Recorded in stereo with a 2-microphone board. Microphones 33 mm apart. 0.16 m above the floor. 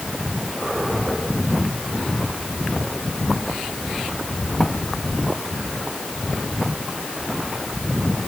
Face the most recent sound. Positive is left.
No sound to turn to.